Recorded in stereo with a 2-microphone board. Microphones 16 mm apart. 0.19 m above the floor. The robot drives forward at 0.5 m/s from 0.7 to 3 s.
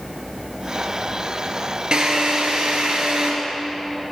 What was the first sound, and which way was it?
A drill, 60° right (ahead or behind).